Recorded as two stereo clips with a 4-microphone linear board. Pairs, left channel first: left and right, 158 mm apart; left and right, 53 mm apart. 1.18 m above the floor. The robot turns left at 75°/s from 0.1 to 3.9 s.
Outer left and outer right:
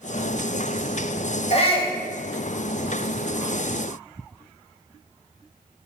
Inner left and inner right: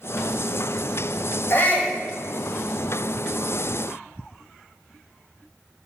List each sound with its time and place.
1.5 s a shout: 70° left, 0.8 m; by 2.0 s 35° left, 0.8 m